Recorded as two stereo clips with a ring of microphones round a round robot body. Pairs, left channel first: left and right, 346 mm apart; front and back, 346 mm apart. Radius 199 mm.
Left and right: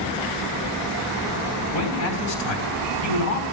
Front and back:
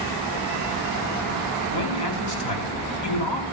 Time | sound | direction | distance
1.7 | a man speaking | 40° left | 3.5 m